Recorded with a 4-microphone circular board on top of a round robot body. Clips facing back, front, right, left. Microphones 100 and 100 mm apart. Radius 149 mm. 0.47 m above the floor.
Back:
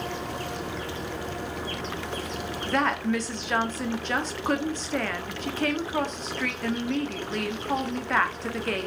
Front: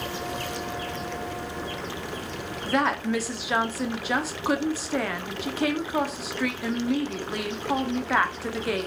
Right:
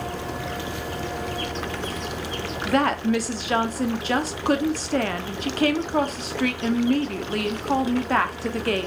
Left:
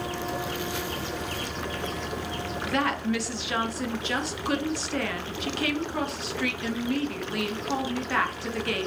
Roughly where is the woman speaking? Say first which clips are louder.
Front 1 dB, right 6 dB; right.